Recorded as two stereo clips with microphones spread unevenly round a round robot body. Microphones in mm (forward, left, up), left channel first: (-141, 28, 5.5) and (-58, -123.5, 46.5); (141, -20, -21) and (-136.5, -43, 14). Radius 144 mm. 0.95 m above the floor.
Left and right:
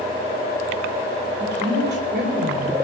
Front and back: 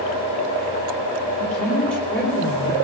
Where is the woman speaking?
80° right, 9 m.